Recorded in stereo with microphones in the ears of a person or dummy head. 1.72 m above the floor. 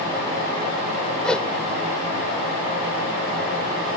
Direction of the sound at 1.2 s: Centre (ahead or behind).